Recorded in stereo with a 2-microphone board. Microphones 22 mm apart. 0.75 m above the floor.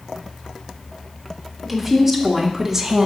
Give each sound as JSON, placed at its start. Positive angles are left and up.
{"t": 1.6, "sound": "a woman speaking", "side_deg": -5, "distance_m": 3.0}